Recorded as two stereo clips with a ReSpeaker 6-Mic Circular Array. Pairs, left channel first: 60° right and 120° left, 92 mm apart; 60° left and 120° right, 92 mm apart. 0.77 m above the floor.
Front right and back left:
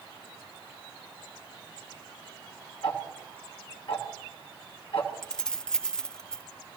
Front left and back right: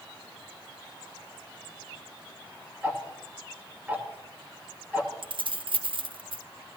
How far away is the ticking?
About 2.5 m.